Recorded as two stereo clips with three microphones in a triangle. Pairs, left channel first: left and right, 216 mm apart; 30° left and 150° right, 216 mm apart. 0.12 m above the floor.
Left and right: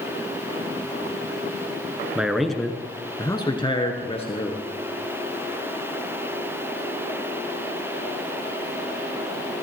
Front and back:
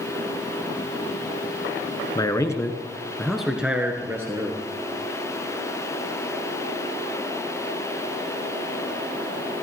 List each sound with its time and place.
2.1 s a man speaking: 15° right, 1.2 m; by 4.7 s 140° left, 1.8 m